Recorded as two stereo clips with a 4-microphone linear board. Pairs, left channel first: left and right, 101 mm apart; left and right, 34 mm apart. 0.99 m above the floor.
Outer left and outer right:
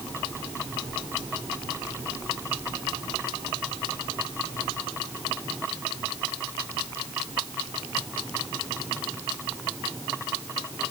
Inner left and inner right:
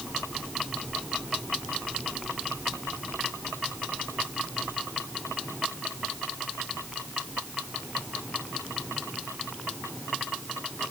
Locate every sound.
Only background noise.